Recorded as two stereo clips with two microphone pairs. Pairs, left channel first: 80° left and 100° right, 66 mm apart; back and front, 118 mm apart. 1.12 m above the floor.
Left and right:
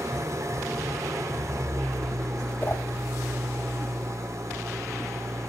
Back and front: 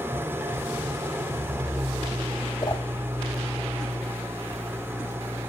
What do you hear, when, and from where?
0.0 s an engine running: 70° right, 1.3 m
2.6 s a whoosh: 135° left, 1.5 m